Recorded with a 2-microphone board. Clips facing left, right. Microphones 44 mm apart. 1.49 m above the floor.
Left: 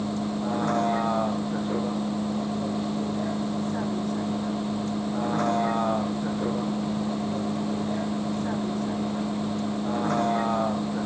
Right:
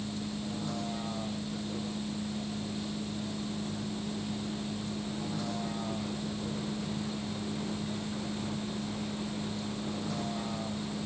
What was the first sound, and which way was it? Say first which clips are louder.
A vehicle: left 9 dB; 55° left (ahead or behind).